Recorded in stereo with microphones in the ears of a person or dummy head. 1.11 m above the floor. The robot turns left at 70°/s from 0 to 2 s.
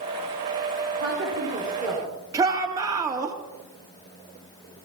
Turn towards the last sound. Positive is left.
turn(degrees=-20)  # may be behind; listen again after turning